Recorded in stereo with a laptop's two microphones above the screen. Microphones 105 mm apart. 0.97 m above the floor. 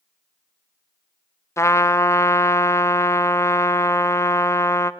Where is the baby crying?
No baby crying in this recording.